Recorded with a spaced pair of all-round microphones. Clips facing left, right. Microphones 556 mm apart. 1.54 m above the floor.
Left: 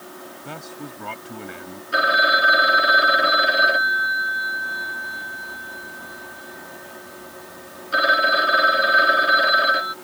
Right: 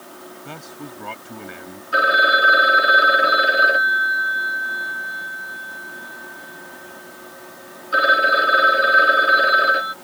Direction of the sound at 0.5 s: Centre (ahead or behind).